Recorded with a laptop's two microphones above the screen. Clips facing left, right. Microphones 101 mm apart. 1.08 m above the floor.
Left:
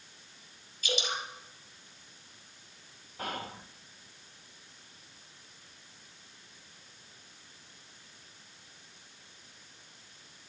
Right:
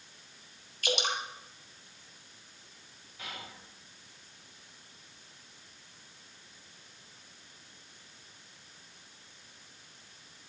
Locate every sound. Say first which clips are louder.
0.8 s dripping: right 2 dB; 65° right (ahead or behind), 2 m
3.2 s whispering: left 8 dB; 45° left (ahead or behind), 0.7 m